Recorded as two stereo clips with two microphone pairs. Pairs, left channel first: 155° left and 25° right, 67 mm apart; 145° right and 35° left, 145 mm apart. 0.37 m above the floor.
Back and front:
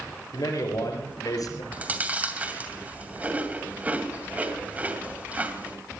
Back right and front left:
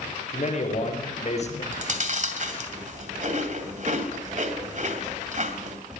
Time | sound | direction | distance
0.3 | a man speaking | straight behind | 6 m
1.7 | chewing | 40° left | 2.5 m